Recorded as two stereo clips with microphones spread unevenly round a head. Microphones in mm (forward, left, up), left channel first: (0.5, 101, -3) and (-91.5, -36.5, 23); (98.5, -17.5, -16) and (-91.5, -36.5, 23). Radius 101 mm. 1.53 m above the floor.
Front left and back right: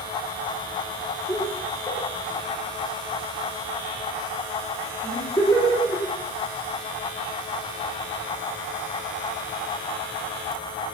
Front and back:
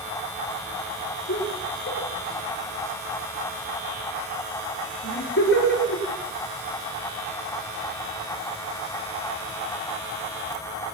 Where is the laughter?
20° right, 5.5 m.